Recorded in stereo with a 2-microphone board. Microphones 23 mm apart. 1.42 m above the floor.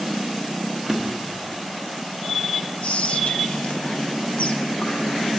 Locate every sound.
0.9 s a drawer: 15° right (ahead or behind), 1.4 m
2.8 s whispering: 60° left (ahead or behind), 0.5 m